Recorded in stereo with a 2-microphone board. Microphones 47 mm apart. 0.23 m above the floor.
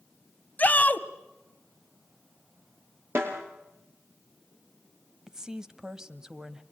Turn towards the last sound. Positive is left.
turn(degrees=-15)  # may be behind; listen again after turning